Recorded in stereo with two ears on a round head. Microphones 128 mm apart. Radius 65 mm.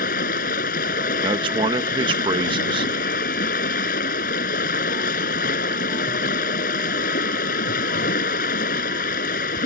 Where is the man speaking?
35° right (ahead or behind).